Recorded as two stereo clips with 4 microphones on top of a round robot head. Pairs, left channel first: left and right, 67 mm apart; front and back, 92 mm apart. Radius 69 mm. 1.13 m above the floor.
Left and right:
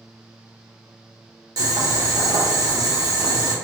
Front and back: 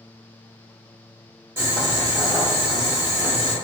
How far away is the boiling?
About 0.9 m.